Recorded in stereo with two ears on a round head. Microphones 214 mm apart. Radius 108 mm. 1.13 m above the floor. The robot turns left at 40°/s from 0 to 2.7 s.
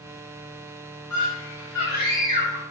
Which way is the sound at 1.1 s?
75° left.